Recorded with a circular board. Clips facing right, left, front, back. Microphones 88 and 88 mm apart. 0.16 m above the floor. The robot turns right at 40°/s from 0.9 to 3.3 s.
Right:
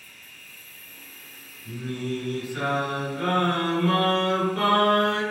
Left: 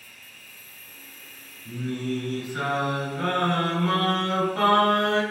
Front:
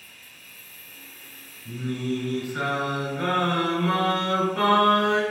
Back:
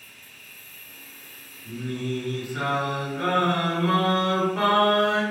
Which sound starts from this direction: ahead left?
Singing, at 1.6 s.